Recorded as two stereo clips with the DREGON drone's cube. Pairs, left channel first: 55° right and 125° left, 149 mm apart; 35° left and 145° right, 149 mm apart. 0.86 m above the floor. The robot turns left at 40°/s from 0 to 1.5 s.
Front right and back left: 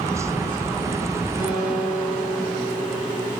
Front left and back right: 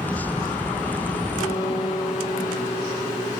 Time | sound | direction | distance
1.4 | a guitar | 5° left | 6.5 m